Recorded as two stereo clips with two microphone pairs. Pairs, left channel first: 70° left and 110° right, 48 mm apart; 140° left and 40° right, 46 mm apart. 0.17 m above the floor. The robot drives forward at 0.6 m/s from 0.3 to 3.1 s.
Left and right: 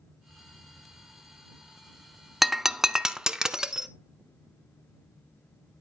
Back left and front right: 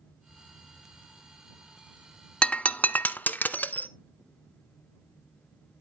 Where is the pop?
No pop in this recording.